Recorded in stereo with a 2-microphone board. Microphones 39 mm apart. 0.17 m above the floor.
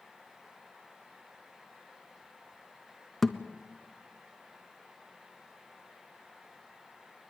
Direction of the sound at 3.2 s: 5° left (ahead or behind).